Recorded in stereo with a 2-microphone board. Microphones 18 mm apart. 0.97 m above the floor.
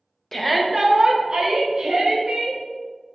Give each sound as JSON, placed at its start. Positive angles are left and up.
{"t": 0.3, "sound": "a shout", "side_deg": 20, "distance_m": 0.7}